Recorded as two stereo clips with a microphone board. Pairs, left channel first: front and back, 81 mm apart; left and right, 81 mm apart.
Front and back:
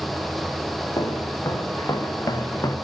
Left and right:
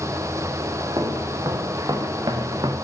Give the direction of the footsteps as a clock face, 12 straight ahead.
2 o'clock.